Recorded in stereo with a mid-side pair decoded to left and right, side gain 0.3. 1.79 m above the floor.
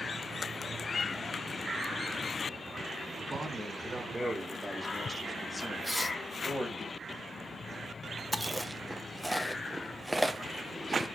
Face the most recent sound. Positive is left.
turn(degrees=-5)